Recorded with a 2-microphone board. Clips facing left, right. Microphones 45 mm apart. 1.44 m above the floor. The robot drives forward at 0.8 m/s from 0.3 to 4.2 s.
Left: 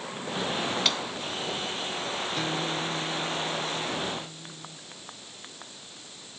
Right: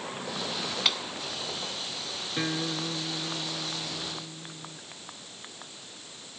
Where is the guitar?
20° right (ahead or behind).